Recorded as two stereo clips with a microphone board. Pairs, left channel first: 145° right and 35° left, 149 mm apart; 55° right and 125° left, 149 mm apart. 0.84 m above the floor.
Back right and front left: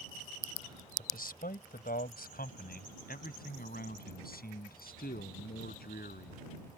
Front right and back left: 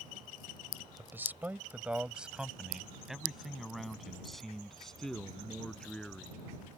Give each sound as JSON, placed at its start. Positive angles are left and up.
{"t": 1.0, "sound": "a man speaking", "azimuth_deg": -160}